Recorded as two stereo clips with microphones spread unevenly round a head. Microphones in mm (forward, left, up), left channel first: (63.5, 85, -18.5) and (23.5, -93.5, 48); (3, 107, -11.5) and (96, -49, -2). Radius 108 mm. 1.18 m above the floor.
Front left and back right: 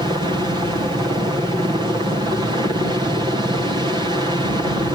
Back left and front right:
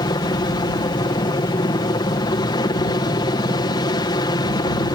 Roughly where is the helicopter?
Behind.